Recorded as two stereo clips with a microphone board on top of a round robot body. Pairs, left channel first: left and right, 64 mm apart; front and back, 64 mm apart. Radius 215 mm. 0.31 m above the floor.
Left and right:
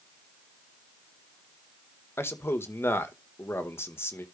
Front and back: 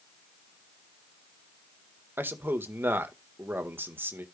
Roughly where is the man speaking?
Behind left.